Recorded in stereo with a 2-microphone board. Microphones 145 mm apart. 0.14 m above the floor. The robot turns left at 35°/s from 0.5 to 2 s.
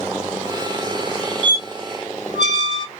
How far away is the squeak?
About 0.7 m.